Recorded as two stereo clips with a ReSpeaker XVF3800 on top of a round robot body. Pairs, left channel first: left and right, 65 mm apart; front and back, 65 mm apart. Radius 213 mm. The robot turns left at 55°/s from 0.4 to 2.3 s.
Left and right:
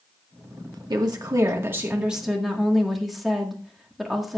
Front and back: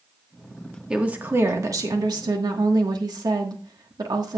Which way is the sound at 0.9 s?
100° right.